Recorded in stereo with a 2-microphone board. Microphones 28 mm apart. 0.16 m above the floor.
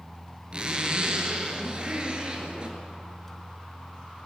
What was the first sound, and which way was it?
A zipper, 35° right (ahead or behind).